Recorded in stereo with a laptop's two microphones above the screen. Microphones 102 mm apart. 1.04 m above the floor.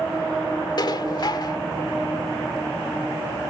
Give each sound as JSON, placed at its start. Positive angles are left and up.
{"t": 0.8, "sound": "dishes clattering", "side_deg": 45}